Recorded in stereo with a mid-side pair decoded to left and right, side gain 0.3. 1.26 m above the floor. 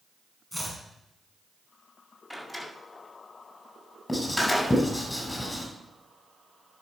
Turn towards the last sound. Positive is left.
turn(degrees=20)